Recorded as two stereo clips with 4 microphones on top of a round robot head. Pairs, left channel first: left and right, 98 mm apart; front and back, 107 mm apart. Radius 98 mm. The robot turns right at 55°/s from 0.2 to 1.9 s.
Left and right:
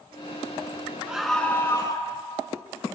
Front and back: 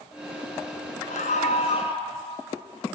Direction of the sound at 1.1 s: 10° right.